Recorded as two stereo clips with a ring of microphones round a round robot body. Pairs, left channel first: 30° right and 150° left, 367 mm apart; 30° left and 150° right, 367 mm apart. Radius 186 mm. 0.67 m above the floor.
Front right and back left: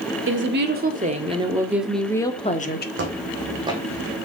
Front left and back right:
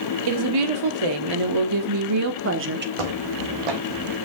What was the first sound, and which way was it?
A woman speaking, 155° right.